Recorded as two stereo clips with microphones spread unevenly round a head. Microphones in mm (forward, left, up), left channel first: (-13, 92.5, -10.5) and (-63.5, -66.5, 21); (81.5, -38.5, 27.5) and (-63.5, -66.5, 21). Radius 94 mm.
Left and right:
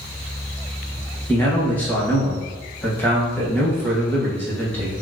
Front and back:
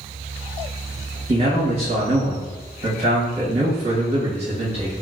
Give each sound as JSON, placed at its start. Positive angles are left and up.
{"t": 1.3, "sound": "a man speaking", "azimuth_deg": 145, "distance_m": 1.3}